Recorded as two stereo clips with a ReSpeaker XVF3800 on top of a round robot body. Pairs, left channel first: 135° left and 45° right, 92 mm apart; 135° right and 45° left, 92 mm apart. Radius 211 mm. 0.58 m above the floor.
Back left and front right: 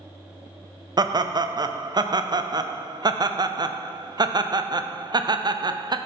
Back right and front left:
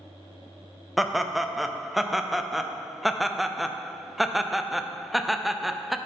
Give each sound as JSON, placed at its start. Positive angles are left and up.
{"t": 1.0, "sound": "laughter", "azimuth_deg": -45, "distance_m": 0.8}